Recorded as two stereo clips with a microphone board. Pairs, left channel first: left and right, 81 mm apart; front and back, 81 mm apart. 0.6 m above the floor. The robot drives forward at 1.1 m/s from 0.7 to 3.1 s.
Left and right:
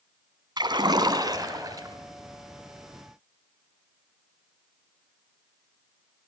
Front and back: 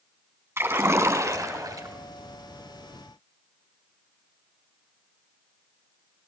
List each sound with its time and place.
0.6 s a splash: 120° right, 3 m; by 1.9 s 135° right, 4 m